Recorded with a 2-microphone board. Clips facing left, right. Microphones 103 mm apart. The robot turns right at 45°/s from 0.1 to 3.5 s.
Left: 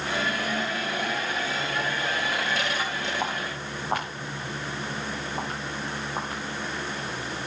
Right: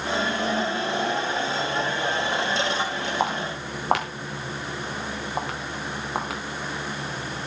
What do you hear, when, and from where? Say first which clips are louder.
3.2 s footsteps: right 4 dB; 80° right, 5 m; by 6.4 s 85° right, 7.5 m